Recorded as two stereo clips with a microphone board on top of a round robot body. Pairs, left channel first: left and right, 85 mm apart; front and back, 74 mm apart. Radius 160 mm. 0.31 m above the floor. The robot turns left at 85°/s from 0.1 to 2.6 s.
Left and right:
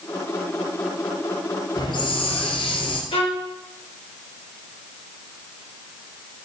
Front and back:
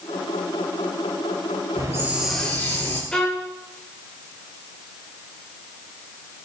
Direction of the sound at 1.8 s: 140° left.